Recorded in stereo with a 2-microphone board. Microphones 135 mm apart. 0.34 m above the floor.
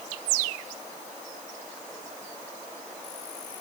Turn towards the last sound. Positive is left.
No sound to turn to.